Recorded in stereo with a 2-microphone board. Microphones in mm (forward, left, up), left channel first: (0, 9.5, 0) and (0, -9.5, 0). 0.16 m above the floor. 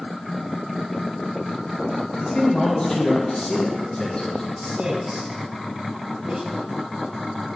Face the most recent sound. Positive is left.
turn(degrees=-65)  # may be behind; listen again after turning